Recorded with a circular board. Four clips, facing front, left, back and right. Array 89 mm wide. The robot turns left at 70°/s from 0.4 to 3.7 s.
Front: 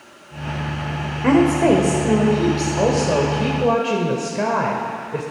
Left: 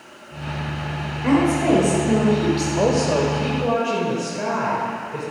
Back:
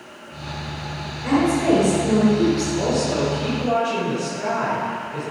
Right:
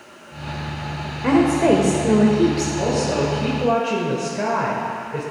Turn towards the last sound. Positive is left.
turn(degrees=-10)